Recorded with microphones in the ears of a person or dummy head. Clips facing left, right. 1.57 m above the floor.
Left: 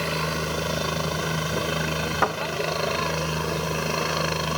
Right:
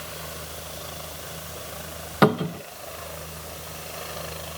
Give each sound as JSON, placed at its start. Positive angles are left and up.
{"t": 0.0, "sound": "a helicopter", "side_deg": 80}
{"t": 2.2, "sound": "a cupboard door", "side_deg": -50}